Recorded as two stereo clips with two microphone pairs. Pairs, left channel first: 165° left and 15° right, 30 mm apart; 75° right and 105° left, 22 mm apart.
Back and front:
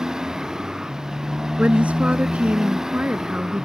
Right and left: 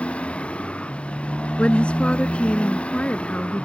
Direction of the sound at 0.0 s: 85° right.